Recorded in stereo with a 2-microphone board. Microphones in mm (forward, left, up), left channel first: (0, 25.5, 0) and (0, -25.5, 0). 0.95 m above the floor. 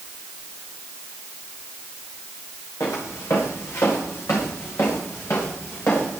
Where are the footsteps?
70° left (ahead or behind), 5 m; by 6.2 s 50° left (ahead or behind), 5.5 m.